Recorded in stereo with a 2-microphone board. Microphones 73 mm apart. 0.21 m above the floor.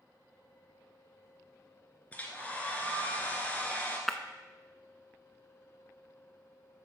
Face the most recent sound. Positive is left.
turn(degrees=0)  # may be behind; listen again after turning